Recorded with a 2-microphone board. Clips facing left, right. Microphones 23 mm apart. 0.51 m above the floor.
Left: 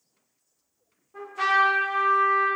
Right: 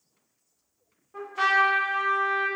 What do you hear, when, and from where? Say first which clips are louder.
1.1 s a trumpet: even; 30° right (ahead or behind), 1.3 m